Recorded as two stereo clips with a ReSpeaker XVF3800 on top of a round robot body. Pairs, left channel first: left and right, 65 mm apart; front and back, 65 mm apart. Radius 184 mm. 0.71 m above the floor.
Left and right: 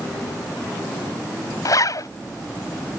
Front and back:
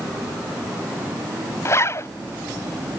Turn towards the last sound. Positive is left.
turn(degrees=55)